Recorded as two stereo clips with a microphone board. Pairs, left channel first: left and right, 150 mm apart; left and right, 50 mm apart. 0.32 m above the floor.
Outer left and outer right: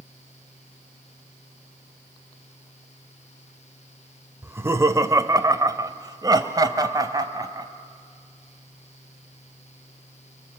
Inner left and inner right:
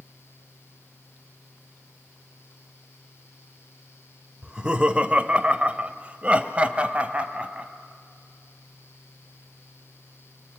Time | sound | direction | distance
4.4 | laughter | 15° right (ahead or behind) | 0.8 m